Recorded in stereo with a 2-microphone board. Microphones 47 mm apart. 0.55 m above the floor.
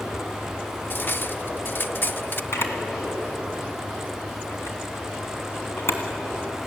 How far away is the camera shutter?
About 2.5 m.